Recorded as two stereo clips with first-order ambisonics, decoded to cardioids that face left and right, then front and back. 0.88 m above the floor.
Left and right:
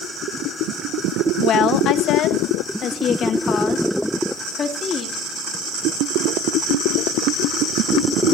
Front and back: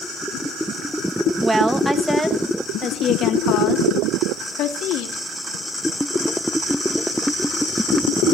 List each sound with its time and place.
1.4 s a woman speaking: 115° left, 1.0 m; by 5.2 s 25° left, 2 m